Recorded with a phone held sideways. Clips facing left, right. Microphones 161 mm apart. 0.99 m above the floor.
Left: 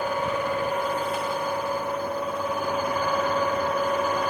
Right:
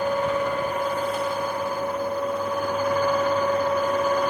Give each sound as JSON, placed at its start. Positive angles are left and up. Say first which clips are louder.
{"t": 0.0, "sound": "a fan", "louder": "right 3 dB", "side_deg": 5, "distance_m": 1.2}